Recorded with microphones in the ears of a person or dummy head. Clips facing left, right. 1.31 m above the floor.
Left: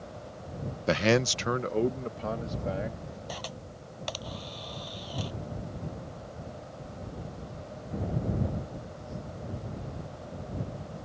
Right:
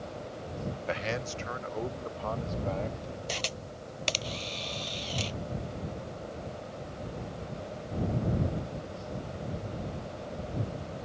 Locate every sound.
0.9 s a man speaking: 65° left (ahead or behind); by 3.2 s 10° left (ahead or behind)
3.3 s a camera shutter: 35° right (ahead or behind)